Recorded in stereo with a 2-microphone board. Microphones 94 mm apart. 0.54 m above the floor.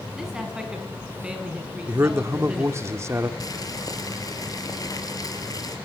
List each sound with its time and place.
0.2 s a man speaking: 5° right (ahead or behind), 4.5 m; by 2.9 s 15° right (ahead or behind), 6 m
1.9 s a man speaking: 30° right (ahead or behind), 1.5 m
3.4 s boiling: 40° left (ahead or behind), 3.5 m